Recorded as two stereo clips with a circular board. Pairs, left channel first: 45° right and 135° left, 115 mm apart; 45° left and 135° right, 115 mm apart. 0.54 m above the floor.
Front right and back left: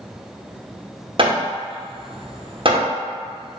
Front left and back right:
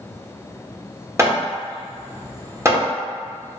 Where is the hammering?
165° left, 0.8 m.